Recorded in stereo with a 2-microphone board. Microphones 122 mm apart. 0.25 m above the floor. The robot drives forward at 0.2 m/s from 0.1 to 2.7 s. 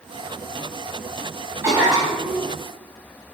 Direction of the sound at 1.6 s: 25° right (ahead or behind).